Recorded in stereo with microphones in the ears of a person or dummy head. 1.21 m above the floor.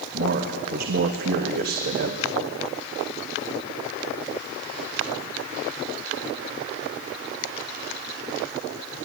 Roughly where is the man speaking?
Right.